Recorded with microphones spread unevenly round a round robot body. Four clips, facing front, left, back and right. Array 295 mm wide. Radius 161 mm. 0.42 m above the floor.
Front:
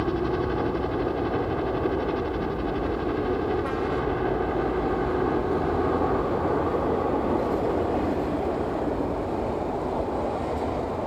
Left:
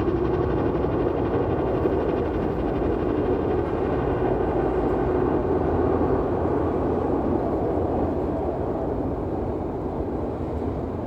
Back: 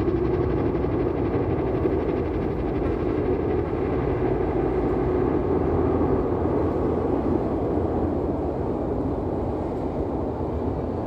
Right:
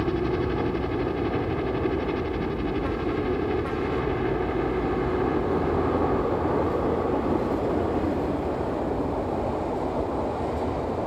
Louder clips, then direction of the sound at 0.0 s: Left 3 dB, back 3 dB; 150° left.